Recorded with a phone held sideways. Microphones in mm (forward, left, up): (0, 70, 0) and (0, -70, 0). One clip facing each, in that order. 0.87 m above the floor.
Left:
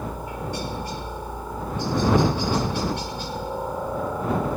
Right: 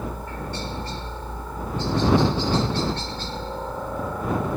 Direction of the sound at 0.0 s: 10° left (ahead or behind).